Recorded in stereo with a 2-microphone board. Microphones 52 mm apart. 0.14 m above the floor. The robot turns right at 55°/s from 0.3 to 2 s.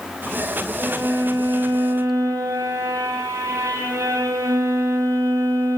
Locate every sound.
0.8 s a violin: 160° right, 5.5 m; by 5.8 s 90° right, 5.5 m